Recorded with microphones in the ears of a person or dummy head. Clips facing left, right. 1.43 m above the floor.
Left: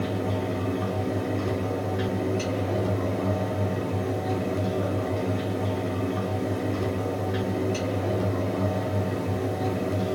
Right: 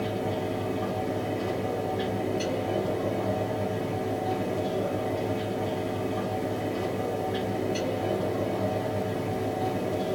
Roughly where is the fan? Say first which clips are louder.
Left 1 dB; left.